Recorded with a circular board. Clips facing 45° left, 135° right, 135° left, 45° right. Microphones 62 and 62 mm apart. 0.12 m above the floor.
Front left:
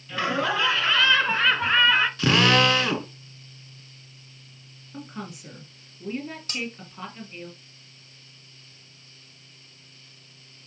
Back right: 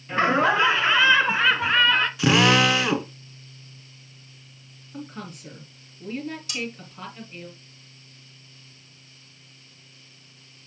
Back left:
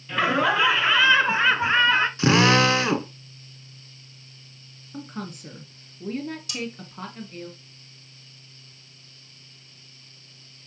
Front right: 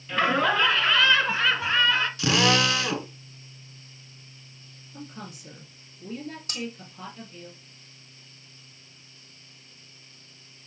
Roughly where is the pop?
No pop in this recording.